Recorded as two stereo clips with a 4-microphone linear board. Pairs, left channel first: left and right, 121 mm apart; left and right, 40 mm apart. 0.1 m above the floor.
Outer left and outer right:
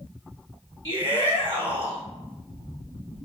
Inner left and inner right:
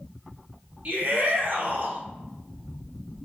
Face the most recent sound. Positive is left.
turn(degrees=-40)  # may be behind; listen again after turning